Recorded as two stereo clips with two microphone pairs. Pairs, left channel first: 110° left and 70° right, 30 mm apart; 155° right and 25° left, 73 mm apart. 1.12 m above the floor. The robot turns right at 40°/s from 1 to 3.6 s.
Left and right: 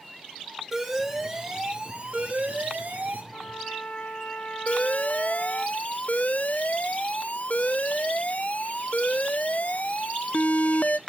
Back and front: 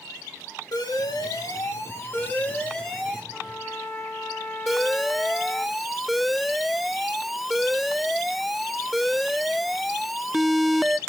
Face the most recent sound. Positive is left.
turn(degrees=110)